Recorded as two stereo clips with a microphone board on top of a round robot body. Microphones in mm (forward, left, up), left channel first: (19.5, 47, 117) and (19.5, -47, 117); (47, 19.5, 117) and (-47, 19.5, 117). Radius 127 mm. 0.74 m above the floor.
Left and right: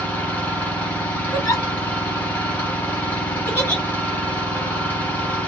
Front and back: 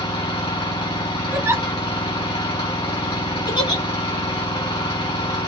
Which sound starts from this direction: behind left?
A giggle, at 1.3 s.